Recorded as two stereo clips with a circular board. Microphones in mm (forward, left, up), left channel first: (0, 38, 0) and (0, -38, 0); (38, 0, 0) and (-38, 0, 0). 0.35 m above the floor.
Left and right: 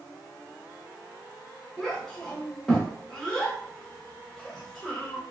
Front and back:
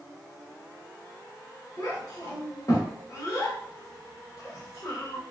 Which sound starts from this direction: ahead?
A child speaking, at 1.8 s.